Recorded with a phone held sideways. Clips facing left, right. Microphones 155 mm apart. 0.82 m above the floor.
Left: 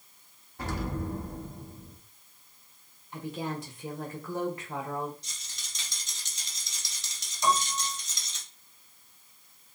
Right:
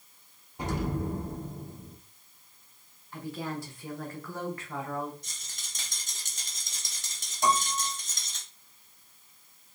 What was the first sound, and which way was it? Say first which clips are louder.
An explosion: right 2 dB; 15° right (ahead or behind).